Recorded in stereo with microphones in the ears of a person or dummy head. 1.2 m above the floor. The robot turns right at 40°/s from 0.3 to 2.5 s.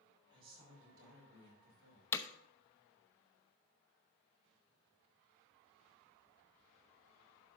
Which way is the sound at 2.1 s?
15° left (ahead or behind).